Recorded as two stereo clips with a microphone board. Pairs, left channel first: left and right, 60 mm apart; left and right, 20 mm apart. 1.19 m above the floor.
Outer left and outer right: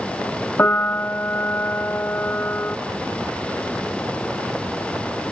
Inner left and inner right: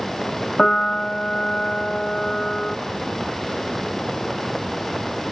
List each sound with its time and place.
0.6 s a piano: 35° left (ahead or behind), 0.7 m